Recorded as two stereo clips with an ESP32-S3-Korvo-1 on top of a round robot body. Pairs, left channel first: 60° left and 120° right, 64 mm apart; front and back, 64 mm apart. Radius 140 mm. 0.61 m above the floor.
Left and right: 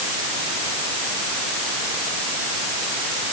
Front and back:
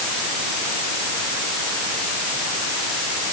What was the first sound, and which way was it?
Only background noise.